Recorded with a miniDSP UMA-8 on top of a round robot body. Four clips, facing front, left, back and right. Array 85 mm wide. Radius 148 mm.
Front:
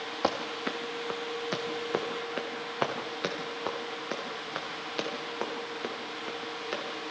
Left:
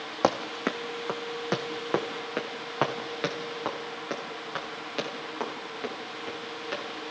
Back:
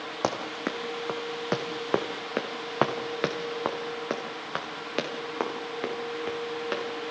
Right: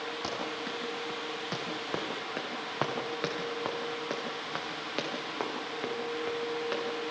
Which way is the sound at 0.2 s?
110° left.